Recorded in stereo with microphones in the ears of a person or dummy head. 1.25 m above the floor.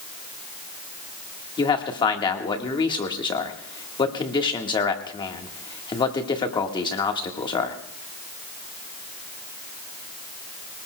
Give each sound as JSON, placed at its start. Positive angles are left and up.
{"t": 1.6, "sound": "a man speaking", "side_deg": 25, "distance_m": 1.5}